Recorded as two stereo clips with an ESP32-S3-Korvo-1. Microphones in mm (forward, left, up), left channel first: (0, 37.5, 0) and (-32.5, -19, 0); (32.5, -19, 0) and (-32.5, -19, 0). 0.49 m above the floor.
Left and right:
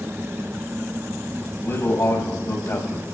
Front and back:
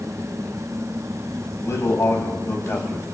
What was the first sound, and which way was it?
A man speaking, 20° left.